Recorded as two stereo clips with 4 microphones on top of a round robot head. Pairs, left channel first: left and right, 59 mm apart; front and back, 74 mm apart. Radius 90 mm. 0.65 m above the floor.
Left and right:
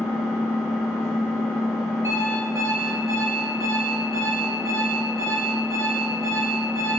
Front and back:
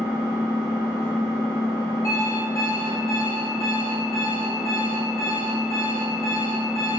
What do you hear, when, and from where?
0.0 s an engine running: 5° right, 1.4 m
2.0 s an alarm clock: 50° right, 0.9 m